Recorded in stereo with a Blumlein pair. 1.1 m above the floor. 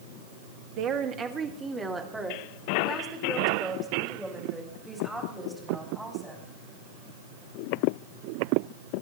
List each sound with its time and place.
0.8 s a woman speaking: 35° right, 1.4 m; by 6.5 s 5° left, 7 m